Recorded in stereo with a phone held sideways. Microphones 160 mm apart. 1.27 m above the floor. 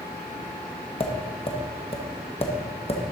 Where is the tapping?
35° left (ahead or behind), 0.9 m.